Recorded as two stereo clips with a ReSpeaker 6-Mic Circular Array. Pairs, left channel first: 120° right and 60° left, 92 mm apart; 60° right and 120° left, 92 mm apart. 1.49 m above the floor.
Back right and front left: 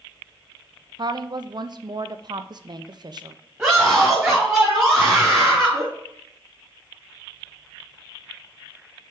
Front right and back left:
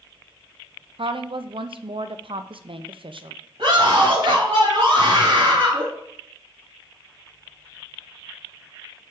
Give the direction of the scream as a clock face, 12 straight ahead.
7 o'clock.